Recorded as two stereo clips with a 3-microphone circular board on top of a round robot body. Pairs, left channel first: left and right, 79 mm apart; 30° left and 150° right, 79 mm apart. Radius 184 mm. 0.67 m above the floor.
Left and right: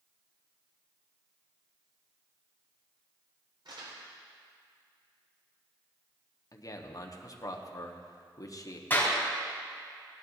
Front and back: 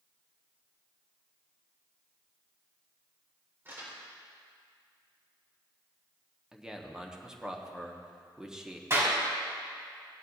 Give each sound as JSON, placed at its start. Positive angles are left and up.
{"t": 3.6, "sound": "crumpling", "azimuth_deg": -90, "distance_m": 4.5}
{"t": 6.5, "sound": "a man speaking", "azimuth_deg": 130, "distance_m": 1.4}
{"t": 8.9, "sound": "a clap", "azimuth_deg": 155, "distance_m": 4.0}